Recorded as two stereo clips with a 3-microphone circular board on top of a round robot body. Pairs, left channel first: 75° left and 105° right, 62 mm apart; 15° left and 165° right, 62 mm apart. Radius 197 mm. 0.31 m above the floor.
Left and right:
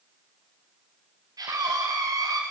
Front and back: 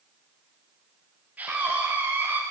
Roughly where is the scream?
Right.